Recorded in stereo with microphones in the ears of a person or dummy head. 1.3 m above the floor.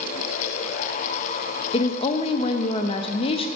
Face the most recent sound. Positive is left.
turn(degrees=30)  # may be behind; listen again after turning